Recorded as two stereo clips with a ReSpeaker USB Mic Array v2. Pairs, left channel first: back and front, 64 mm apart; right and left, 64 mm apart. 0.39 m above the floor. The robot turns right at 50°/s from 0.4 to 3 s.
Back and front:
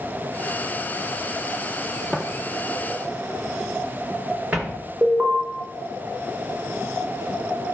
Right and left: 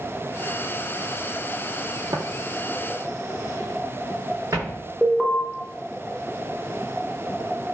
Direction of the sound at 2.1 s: 85° left.